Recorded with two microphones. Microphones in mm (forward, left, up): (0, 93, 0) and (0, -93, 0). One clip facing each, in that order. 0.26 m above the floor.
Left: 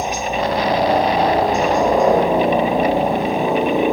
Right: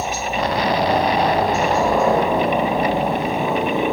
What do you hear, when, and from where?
0.0 s a helicopter: 20° left (ahead or behind)